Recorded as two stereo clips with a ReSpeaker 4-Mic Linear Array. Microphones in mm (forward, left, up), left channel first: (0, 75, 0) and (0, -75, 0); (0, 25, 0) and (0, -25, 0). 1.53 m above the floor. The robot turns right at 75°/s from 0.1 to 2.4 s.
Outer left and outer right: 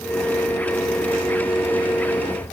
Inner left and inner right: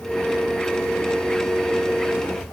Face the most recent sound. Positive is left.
No sound to turn to.